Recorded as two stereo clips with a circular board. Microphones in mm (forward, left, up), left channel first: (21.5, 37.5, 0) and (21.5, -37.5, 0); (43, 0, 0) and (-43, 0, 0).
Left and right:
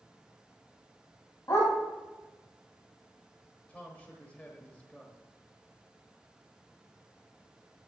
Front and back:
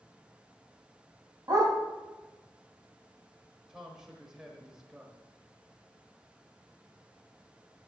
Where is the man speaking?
115° left, 1.1 m.